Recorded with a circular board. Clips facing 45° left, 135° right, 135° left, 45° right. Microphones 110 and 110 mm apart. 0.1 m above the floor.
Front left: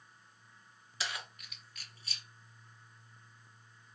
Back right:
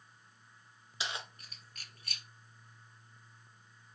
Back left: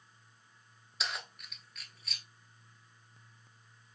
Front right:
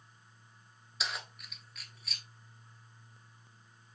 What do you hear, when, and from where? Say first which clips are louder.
1.0 s keys jangling: back right 1 dB, even; 135° right, 0.8 m